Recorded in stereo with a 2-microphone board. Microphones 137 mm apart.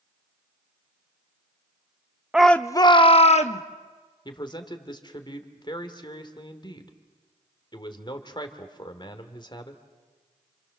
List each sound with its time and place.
2.3 s a shout: 5° right (ahead or behind), 0.6 m; by 3.6 s 55° left (ahead or behind), 1.3 m
4.2 s a man speaking: 35° left (ahead or behind), 2.5 m